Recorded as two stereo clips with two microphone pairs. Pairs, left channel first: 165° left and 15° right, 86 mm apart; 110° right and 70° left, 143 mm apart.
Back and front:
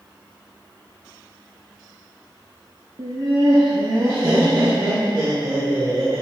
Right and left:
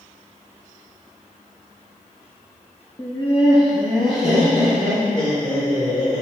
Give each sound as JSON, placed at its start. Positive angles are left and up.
{"t": 3.0, "sound": "laughter", "azimuth_deg": -45, "distance_m": 0.9}